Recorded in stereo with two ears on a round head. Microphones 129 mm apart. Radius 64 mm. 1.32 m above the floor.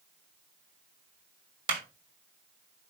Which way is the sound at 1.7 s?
40° right (ahead or behind).